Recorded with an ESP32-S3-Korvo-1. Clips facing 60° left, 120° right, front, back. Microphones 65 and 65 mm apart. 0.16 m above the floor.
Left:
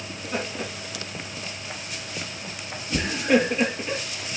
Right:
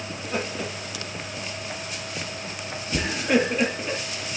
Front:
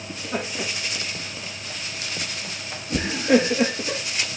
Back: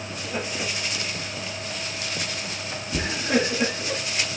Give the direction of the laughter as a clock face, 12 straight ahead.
1 o'clock.